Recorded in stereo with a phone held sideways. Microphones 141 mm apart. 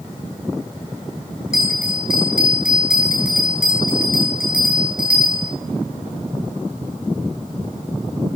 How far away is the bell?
About 6 m.